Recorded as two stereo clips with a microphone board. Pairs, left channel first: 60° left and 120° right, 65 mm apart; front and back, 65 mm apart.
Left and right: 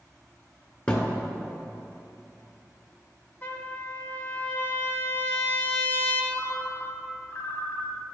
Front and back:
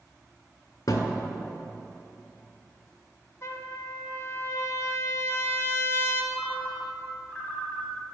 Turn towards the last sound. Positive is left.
turn(degrees=50)